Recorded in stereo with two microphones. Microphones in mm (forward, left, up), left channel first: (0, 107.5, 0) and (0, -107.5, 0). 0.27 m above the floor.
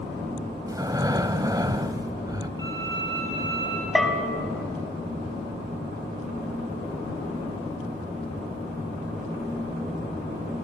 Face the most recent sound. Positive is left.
turn(degrees=0)  # may be behind; listen again after turning